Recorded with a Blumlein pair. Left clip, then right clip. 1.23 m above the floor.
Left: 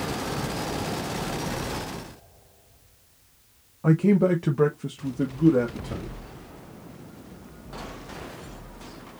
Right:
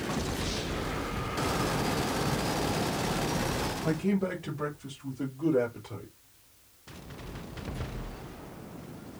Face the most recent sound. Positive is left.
turn(degrees=40)